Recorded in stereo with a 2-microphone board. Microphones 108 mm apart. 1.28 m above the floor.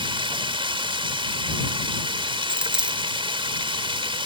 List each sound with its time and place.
0.0 s running water: 55° right (ahead or behind)
2.5 s a dropped coin: 10° right (ahead or behind)